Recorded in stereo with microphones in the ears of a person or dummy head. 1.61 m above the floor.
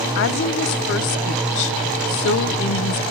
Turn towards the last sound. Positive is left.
turn(degrees=60)  # may be behind; listen again after turning